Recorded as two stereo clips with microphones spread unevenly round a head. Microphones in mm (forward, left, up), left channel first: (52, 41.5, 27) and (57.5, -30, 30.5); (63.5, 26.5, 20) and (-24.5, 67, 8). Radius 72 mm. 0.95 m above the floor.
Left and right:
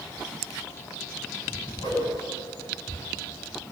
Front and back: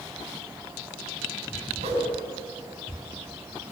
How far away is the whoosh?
About 8 m.